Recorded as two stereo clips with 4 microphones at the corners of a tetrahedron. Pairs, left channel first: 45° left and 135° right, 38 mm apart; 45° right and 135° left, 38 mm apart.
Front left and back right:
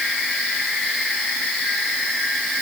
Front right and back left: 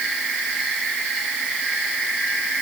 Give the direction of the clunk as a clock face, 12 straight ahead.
No clunk in this recording.